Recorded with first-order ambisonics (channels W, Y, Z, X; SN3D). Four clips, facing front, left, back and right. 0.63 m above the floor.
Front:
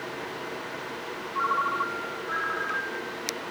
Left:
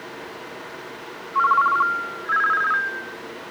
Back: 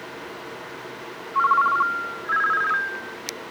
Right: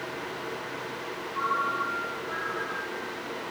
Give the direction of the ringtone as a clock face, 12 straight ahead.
8 o'clock.